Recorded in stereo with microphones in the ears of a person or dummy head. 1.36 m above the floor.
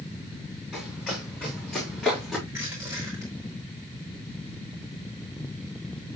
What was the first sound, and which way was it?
Running footsteps, centre (ahead or behind).